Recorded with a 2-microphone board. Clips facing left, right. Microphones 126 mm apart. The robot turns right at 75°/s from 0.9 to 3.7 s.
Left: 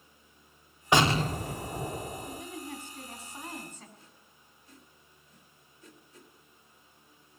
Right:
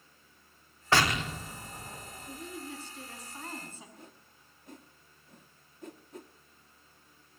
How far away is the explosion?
About 0.6 m.